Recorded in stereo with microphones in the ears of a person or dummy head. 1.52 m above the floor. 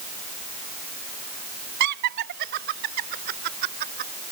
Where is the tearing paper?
I don't hear tearing paper.